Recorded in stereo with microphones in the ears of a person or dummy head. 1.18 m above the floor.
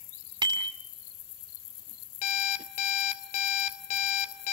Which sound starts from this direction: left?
An alarm clock, at 2.2 s.